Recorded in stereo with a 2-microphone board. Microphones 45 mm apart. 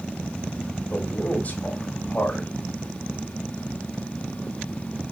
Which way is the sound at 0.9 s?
35° left (ahead or behind).